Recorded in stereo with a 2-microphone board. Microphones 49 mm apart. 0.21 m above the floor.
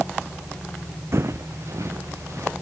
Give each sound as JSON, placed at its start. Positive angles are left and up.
{"t": 1.1, "sound": "footsteps", "side_deg": -60, "distance_m": 0.9}